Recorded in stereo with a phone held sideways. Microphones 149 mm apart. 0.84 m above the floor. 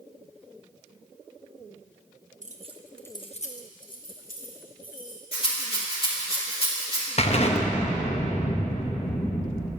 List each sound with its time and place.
2.4 s keys jangling: 60° right (ahead or behind), 0.9 m; by 5.2 s 75° left (ahead or behind), 3 m
5.3 s a rattle: 40° left (ahead or behind), 2.5 m
7.2 s an explosion: 45° left (ahead or behind), 0.9 m